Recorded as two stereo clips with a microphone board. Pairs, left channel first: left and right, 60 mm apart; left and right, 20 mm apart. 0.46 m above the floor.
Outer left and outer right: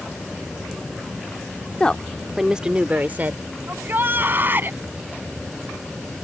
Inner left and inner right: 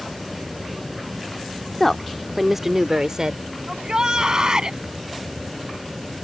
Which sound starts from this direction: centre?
A woman speaking, at 1.8 s.